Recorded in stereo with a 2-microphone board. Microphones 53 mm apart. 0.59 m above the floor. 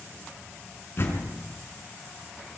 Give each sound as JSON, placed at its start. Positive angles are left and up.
{"t": 1.0, "sound": "a door slam", "side_deg": 45, "distance_m": 5.5}